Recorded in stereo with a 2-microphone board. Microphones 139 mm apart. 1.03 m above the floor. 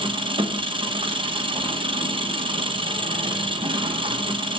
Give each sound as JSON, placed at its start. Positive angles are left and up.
{"t": 0.0, "sound": "an engine running", "side_deg": -35, "distance_m": 0.8}